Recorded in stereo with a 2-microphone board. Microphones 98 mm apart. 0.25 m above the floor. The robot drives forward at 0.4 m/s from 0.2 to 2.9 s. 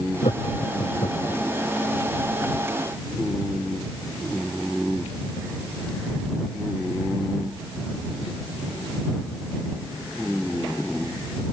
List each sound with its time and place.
0.2 s laughter: 85° left